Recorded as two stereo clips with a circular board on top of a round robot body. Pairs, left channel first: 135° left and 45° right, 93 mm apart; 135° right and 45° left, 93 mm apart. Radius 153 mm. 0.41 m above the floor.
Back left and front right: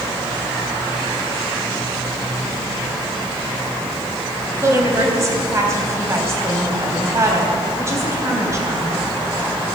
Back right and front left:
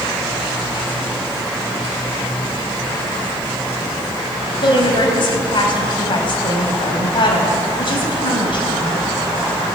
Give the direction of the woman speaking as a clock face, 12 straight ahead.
3 o'clock.